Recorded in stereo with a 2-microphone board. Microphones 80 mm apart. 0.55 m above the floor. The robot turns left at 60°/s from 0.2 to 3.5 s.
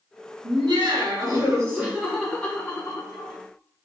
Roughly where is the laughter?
Right.